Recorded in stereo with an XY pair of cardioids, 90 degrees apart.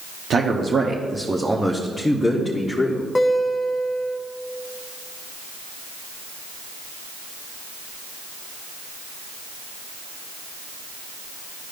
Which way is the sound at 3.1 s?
15° left.